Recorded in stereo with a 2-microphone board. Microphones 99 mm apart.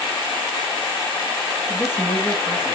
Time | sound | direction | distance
1.7 | a woman speaking | 10° right (ahead or behind) | 7 m